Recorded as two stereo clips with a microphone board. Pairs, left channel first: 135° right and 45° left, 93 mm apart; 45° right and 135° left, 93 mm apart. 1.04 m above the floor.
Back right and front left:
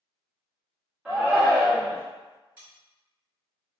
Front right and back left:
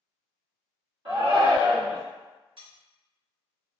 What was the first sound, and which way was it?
A shout, 125° left.